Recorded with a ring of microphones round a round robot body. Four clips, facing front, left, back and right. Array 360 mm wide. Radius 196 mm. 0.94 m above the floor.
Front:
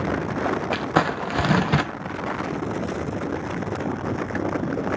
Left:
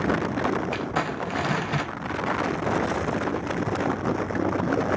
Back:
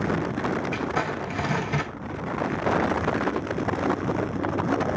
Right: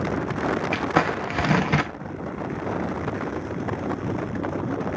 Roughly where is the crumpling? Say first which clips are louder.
Right 5 dB, front 5 dB; ahead right.